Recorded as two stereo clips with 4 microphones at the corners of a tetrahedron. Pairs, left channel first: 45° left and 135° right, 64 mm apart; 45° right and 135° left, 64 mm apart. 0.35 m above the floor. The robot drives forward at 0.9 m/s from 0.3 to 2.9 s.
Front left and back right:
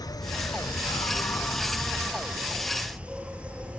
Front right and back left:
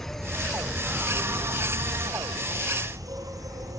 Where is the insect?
40° left, 1.2 m; by 3.8 s 155° left, 1.6 m.